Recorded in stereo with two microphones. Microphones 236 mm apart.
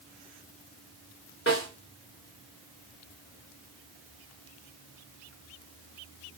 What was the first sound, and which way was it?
A snare drum, 55° left (ahead or behind).